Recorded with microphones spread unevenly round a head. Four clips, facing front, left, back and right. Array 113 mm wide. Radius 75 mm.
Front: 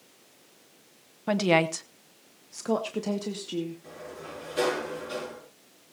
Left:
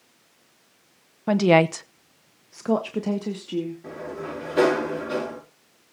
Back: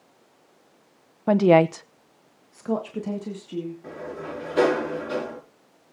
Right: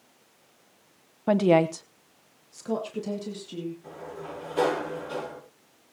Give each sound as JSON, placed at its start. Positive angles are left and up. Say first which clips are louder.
{"t": 1.3, "sound": "a woman speaking", "louder": "left 2 dB, back 7 dB", "azimuth_deg": -165, "distance_m": 0.8}
{"t": 3.8, "sound": "a sliding door", "louder": "left 5 dB, back 7 dB", "azimuth_deg": 105, "distance_m": 6.0}